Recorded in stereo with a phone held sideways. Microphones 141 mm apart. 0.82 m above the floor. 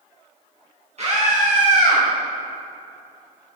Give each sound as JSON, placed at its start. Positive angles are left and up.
{"t": 1.0, "sound": "a scream", "side_deg": -50, "distance_m": 1.4}